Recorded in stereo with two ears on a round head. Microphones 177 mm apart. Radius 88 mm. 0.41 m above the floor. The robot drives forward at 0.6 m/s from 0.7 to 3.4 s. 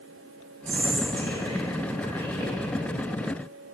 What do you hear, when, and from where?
0.7 s whispering: 30° right (ahead or behind), 1.4 m; by 2.5 s 25° right (ahead or behind), 1.9 m